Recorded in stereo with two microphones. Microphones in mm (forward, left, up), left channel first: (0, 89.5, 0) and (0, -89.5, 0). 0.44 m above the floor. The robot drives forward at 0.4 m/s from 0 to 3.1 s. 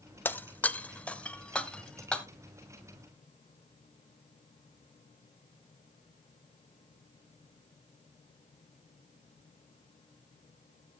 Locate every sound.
0.2 s breaking glass: 10° left (ahead or behind), 0.6 m; by 2.2 s 5° left (ahead or behind), 1.3 m